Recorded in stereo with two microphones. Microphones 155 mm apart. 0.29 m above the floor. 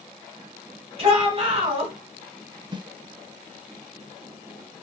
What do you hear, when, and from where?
1.0 s a shout: 35° right (ahead or behind), 1.7 m
2.7 s a snare drum: 30° right (ahead or behind), 0.5 m